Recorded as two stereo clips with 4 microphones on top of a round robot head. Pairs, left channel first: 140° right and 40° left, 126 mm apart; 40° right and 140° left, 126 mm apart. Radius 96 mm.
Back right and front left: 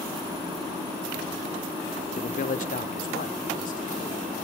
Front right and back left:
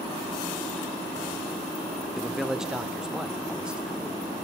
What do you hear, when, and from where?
2.2 s a man speaking: 130° right, 1.0 m; by 4.3 s 140° right, 4 m